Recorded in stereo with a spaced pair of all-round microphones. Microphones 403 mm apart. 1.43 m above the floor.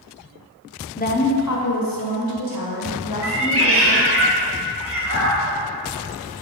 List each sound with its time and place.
1.0 s a woman speaking: 20° left (ahead or behind), 0.7 m; by 4.2 s 75° left (ahead or behind), 3 m
3.2 s a cat meowing: 35° right (ahead or behind), 1.0 m